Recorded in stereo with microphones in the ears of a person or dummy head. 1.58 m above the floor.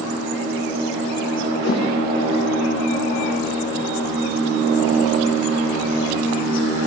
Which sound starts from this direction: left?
A whoosh, at 1.6 s.